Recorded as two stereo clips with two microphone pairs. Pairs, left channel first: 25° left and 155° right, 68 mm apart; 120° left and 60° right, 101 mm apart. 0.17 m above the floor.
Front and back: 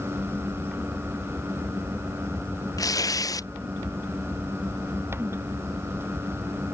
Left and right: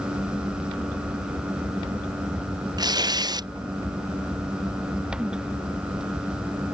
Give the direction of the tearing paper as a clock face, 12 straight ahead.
12 o'clock.